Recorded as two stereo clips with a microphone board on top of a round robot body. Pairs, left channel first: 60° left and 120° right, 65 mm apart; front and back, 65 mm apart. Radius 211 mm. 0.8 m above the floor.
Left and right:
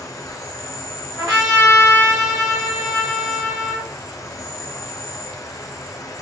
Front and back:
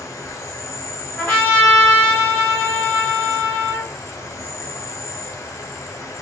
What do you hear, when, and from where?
0.0 s an insect: 35° left, 0.7 m
1.2 s a trumpet: 60° left, 1.0 m